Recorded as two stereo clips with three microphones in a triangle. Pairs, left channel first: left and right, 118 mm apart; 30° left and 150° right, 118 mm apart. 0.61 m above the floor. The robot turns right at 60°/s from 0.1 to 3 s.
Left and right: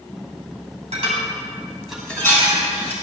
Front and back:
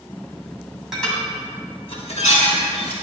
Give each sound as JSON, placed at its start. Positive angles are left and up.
{"t": 0.9, "sound": "dishes clattering", "azimuth_deg": -60, "distance_m": 2.5}